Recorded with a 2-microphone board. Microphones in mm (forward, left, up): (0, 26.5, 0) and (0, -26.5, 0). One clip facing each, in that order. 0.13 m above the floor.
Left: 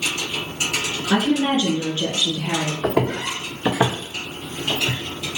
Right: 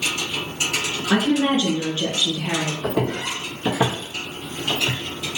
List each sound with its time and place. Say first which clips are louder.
1.1 s a woman speaking: even; 25° right (ahead or behind), 1.4 m
2.8 s footsteps: left 5 dB; 75° left (ahead or behind), 0.9 m; by 5.0 s 20° right (ahead or behind), 1.0 m